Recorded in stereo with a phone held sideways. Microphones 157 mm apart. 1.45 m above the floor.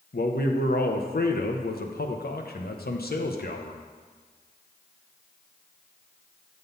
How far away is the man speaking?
About 0.9 m.